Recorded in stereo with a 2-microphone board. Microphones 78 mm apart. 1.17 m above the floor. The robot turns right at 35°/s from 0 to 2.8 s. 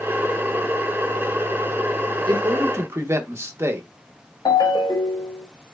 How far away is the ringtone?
About 1.1 m.